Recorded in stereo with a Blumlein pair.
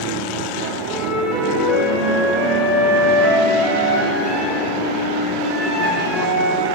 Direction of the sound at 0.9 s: 20° left.